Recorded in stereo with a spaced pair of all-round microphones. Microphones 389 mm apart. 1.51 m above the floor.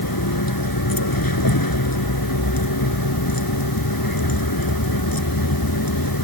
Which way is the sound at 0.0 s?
65° left (ahead or behind).